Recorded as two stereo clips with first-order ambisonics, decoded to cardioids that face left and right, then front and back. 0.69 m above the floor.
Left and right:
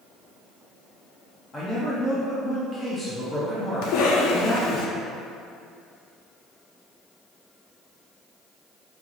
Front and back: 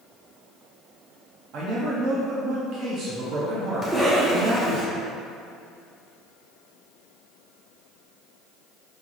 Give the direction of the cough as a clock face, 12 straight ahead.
9 o'clock.